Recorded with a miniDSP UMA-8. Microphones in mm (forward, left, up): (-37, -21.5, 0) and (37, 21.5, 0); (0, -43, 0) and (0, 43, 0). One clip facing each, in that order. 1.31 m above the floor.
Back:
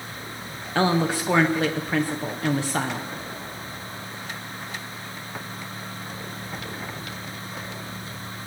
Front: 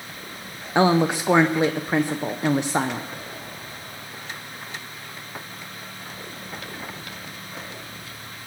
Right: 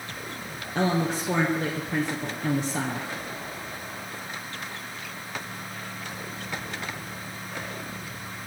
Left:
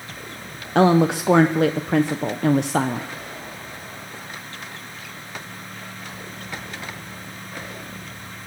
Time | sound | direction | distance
0.8 | a woman speaking | 100° left | 0.7 m